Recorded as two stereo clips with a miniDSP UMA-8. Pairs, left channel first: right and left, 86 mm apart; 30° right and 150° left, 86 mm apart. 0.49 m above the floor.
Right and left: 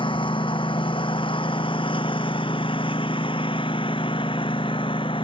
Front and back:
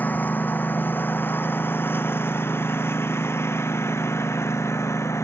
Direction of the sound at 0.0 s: 100° right.